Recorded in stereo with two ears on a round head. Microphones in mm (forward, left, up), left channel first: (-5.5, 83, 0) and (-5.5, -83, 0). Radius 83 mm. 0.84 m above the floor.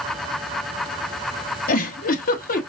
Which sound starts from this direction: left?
A giggle, at 1.7 s.